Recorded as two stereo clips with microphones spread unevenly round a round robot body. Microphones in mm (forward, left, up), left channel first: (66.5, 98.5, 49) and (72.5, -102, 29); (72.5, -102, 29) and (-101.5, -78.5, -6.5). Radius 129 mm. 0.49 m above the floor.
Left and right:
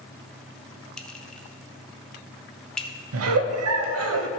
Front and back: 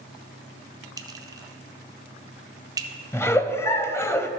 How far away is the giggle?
About 0.5 m.